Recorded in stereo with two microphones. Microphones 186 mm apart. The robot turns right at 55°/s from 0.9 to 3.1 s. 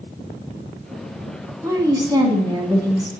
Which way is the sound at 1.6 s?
15° right (ahead or behind).